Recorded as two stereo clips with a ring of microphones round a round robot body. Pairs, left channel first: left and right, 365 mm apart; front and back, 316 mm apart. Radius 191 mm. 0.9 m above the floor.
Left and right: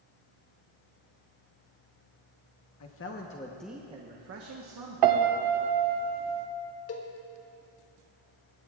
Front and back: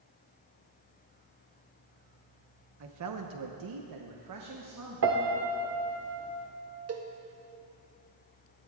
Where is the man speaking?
140° left, 1.2 m; by 5.2 s 125° right, 1.7 m.